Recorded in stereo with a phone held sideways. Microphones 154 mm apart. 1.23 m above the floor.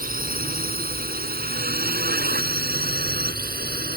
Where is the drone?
70° right (ahead or behind); by 4.0 s 85° right.